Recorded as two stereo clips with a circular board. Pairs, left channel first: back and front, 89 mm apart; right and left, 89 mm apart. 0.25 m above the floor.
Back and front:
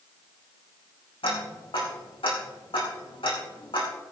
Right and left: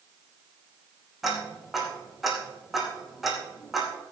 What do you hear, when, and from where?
1.2 s ticking: straight behind, 4 m